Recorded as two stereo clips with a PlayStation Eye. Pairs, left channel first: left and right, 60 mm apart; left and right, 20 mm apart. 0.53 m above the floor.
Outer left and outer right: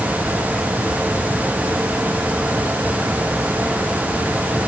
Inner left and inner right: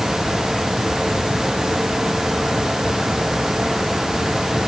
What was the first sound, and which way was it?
Only background noise.